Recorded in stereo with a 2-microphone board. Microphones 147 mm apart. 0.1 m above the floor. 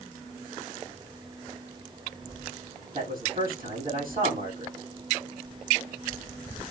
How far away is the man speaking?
About 6 m.